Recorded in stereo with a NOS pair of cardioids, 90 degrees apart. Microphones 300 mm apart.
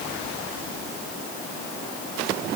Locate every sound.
Only background noise.